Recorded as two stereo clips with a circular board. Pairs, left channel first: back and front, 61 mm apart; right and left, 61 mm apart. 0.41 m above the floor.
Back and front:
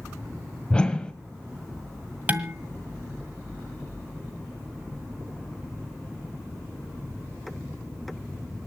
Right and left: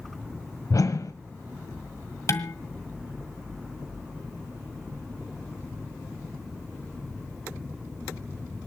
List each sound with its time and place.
0.7 s a whoosh: 105° right, 1.2 m
2.3 s dishes clattering: 60° right, 1.7 m